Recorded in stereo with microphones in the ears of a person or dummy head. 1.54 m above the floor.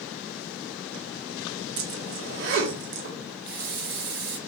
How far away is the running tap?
About 1.6 m.